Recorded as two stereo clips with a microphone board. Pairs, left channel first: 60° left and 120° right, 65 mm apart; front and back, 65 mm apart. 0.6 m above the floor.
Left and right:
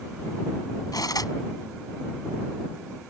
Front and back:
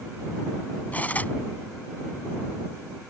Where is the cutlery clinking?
65° left.